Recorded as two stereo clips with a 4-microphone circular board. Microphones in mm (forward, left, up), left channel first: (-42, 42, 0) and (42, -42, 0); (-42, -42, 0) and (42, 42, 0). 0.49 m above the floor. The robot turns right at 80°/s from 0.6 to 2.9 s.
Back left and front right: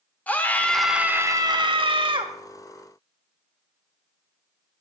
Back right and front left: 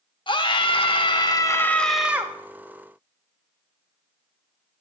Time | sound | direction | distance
0.3 | a scream | 155° right | 1.1 m